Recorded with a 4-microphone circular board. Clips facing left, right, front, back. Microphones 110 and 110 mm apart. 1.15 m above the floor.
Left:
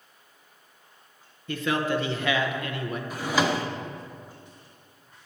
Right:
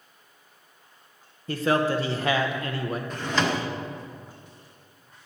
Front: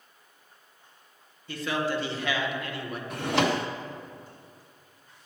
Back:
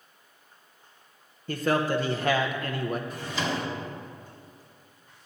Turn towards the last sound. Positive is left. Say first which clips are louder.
# left 2 dB, front 5 dB
turn(degrees=10)